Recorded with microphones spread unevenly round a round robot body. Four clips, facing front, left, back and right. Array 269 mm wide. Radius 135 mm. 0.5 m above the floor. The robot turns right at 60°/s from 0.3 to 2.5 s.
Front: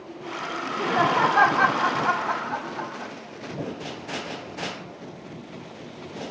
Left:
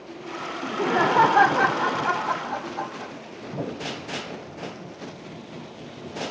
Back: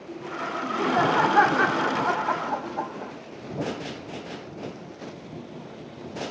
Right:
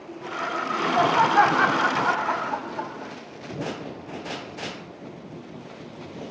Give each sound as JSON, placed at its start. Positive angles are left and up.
{"t": 0.6, "sound": "laughter", "azimuth_deg": 75, "distance_m": 1.2}